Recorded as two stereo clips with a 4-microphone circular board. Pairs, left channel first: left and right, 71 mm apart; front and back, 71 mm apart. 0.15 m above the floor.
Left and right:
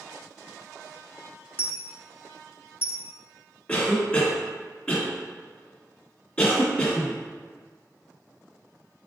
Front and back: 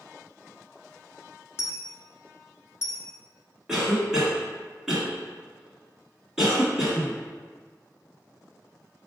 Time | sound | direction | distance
1.6 | a dropped coin | 40° left | 0.7 m
3.7 | a cough | 115° left | 1.2 m